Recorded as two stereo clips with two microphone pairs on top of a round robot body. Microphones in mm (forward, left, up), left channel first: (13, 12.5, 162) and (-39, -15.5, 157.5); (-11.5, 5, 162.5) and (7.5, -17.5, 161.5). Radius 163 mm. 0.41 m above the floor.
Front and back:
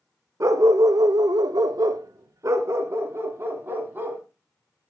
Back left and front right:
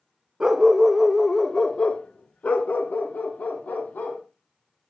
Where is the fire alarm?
I don't hear a fire alarm.